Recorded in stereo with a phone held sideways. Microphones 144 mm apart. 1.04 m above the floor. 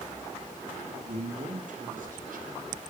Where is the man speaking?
50° right (ahead or behind), 2.5 m; by 2.8 s 75° right (ahead or behind), 4 m.